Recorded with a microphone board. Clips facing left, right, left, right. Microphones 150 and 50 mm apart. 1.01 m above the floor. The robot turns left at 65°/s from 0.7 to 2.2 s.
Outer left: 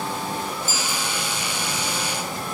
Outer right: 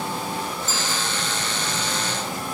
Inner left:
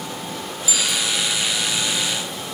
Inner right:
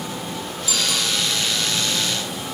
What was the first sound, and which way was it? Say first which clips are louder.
A bicycle bell: even, even; 55° right (ahead or behind).